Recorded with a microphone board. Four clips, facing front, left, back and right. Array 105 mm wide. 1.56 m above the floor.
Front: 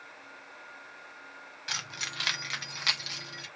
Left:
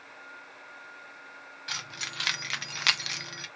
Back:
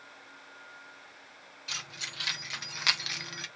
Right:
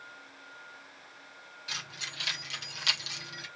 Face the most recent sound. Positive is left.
turn(degrees=145)